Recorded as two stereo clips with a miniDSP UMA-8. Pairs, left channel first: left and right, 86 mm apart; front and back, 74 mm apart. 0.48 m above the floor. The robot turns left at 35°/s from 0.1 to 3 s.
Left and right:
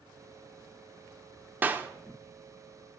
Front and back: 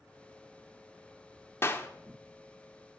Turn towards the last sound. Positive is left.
turn(degrees=-80)